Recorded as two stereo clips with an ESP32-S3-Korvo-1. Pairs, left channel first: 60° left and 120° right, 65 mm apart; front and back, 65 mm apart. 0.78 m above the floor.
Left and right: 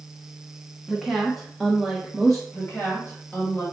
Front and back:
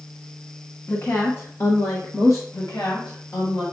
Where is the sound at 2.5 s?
5° right, 2 m.